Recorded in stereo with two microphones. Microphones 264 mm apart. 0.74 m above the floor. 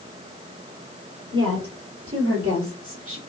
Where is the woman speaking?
55° right (ahead or behind), 2.5 m.